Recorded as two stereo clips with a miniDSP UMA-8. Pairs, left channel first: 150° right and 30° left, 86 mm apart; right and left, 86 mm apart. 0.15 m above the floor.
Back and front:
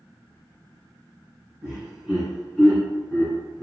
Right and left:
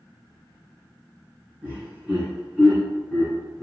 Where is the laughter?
90° left, 1.5 m; by 3.6 s 170° right, 1.7 m.